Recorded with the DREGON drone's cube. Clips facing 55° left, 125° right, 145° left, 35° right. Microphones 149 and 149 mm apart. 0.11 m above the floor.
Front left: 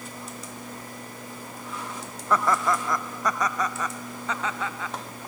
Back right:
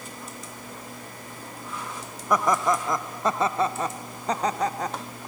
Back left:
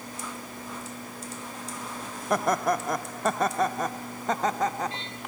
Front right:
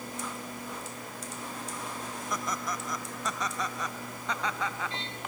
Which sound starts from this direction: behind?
Laughter, at 2.3 s.